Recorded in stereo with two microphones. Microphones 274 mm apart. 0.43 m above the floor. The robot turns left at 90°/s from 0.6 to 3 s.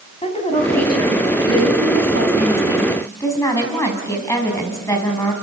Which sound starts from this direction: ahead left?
A woman speaking, at 0.2 s.